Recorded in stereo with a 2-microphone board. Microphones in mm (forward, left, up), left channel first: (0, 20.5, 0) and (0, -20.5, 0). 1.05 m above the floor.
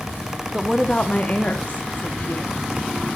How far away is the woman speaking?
About 0.7 m.